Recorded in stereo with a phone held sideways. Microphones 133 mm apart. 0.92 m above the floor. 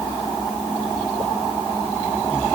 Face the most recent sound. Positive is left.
No sound to turn to.